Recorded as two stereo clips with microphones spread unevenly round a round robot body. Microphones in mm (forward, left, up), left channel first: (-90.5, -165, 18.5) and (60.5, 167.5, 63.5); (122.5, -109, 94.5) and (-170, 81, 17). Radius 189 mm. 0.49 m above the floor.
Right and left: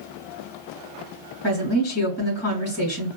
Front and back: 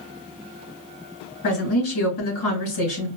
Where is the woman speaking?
65° right, 3 m.